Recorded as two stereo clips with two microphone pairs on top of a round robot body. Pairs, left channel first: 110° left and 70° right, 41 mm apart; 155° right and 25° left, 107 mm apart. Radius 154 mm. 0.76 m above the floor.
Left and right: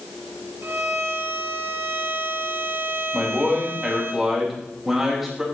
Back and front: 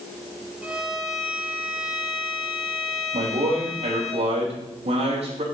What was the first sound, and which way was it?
A violin, 55° right.